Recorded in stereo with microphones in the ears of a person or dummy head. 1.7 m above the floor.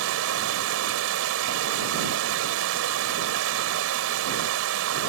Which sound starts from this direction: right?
Running water, at 0.0 s.